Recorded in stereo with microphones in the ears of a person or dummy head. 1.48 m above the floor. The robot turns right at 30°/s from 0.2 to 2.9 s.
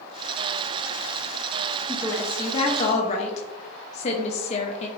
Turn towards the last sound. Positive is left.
turn(degrees=30)